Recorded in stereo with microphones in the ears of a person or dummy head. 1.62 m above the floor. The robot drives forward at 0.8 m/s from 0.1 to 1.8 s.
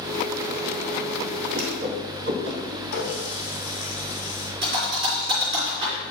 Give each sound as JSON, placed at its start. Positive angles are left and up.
{"t": 1.5, "sound": "a whoosh", "side_deg": -65, "distance_m": 2.0}
{"t": 2.9, "sound": "a running tap", "side_deg": 75, "distance_m": 4.0}
{"t": 4.6, "sound": "a thud", "side_deg": -30, "distance_m": 3.0}